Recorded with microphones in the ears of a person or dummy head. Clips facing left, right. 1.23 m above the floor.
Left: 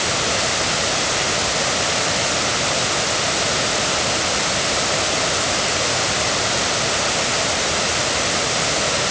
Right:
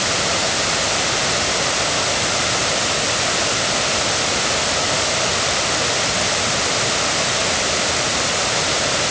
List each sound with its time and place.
Only background noise.